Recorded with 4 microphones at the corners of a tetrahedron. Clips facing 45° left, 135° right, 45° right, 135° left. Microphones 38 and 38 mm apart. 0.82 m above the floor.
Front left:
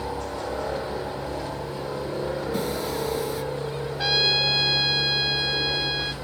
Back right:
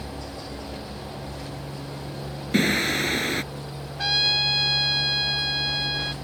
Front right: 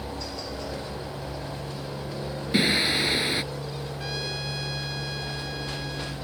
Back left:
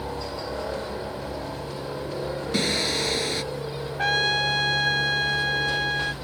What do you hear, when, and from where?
0.0 s a helicopter: 70° left
2.5 s singing: 115° right
4.0 s a trumpet: 135° left